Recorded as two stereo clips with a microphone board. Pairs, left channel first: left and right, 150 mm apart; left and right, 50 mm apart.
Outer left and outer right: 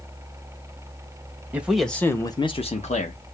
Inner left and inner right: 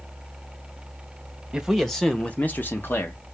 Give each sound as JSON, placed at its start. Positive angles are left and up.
{"t": 1.5, "sound": "a man speaking", "side_deg": -10, "distance_m": 0.9}